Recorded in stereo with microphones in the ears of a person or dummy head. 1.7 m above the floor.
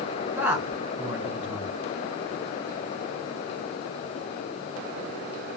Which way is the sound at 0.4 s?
10° right (ahead or behind).